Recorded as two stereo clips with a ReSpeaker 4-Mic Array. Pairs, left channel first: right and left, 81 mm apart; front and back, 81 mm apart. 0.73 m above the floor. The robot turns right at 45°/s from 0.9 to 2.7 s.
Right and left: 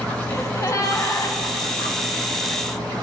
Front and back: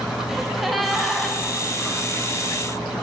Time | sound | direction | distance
0.3 | a gasp | 90° right | 0.8 m